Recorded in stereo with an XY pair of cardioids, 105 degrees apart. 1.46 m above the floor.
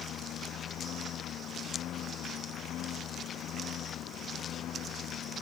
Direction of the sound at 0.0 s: 70° left.